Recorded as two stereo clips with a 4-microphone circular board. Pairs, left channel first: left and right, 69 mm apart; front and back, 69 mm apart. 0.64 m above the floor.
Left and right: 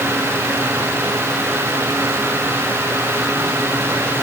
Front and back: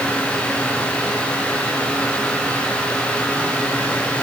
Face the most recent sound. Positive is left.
No sound to turn to.